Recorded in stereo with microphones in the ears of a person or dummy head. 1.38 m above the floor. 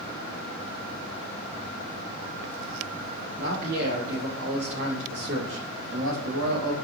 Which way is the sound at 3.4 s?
55° right (ahead or behind).